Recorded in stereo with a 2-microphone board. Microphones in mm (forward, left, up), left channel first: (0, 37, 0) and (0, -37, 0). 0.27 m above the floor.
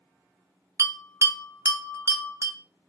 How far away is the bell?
About 0.6 m.